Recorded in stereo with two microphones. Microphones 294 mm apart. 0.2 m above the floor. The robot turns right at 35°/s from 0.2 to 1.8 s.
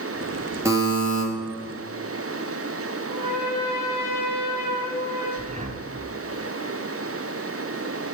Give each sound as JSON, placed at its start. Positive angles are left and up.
{"t": 0.7, "sound": "a buzzer", "side_deg": -10, "distance_m": 3.5}
{"t": 3.0, "sound": "a trumpet", "side_deg": 65, "distance_m": 5.0}
{"t": 5.4, "sound": "breathing", "side_deg": -25, "distance_m": 1.6}